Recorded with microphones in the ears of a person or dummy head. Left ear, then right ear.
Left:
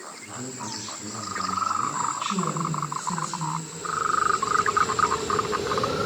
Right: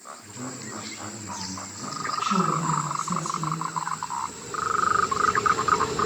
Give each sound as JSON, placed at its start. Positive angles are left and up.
{"t": 0.2, "sound": "a man speaking", "side_deg": -25, "distance_m": 7.5}
{"t": 2.2, "sound": "a woman speaking", "side_deg": -20, "distance_m": 10.0}